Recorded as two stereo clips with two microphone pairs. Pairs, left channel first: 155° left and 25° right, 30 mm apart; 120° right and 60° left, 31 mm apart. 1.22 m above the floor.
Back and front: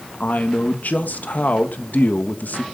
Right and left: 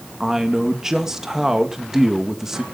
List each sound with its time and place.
0.2 s a man speaking: 135° left, 1.5 m